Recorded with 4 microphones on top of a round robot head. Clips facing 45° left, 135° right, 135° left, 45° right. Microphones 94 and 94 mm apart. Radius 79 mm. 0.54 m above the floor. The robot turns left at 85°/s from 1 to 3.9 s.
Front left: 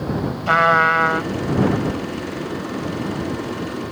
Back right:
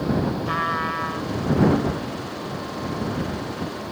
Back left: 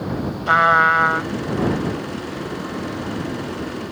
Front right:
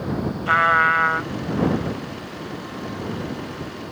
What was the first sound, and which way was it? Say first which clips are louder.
A trumpet: front left 9 dB, back left 3 dB; 65° left.